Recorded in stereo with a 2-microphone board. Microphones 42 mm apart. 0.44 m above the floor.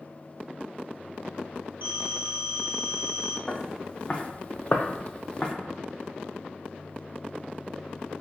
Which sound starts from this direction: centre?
Footsteps, at 3.5 s.